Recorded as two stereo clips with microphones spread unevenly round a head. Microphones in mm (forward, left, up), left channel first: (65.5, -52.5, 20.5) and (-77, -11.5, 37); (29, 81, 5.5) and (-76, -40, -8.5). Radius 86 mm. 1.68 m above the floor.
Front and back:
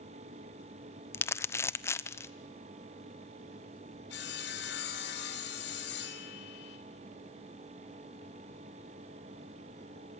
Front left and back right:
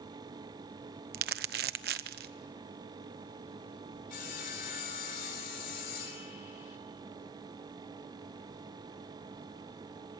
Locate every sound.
1.1 s crumpling: 90° right, 0.9 m
4.1 s sawing: 5° left, 4 m